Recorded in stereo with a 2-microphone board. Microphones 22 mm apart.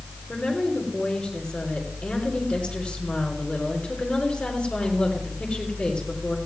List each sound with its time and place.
0.3 s a woman speaking: 60° left (ahead or behind), 4.5 m